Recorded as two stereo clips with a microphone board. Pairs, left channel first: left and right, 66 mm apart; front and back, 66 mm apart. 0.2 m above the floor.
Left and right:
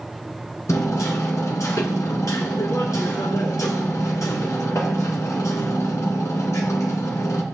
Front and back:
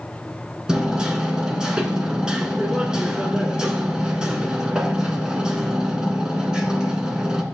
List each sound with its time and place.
0.7 s hammering: 105° left, 1.5 m